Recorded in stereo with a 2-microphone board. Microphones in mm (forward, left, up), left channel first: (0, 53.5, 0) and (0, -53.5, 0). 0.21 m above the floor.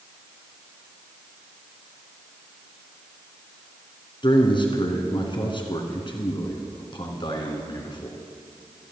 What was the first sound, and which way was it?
A man speaking, 45° left (ahead or behind).